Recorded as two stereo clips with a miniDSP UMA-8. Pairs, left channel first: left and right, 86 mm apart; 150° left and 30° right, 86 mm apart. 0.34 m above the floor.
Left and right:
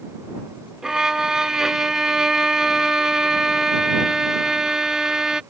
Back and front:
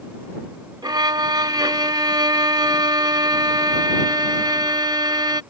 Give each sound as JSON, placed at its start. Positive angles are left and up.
{"t": 0.8, "sound": "a violin", "azimuth_deg": -5}